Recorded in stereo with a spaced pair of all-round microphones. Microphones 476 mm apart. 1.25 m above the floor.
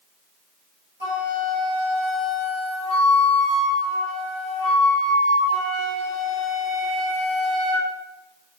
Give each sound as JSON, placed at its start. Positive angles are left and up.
{"t": 1.0, "sound": "a flute", "side_deg": -70, "distance_m": 5.0}